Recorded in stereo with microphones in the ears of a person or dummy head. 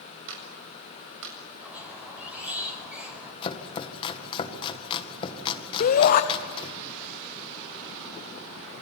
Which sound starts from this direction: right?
A clap, at 0.3 s.